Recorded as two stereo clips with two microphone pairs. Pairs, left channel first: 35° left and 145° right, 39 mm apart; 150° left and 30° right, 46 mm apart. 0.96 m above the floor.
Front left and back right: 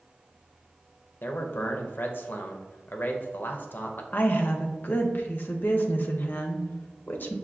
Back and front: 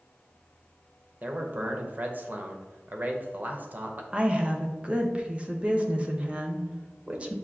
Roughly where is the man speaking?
Ahead.